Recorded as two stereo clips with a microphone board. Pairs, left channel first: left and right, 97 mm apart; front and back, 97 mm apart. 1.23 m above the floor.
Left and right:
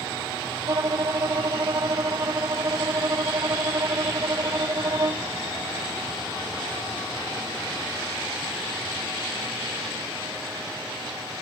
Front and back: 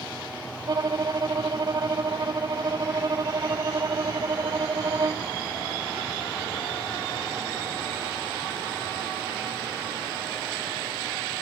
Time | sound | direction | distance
0.7 | a violin | 135° right | ?